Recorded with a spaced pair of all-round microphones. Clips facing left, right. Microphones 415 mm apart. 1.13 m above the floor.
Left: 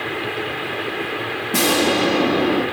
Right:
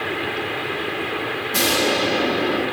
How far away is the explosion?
About 0.9 m.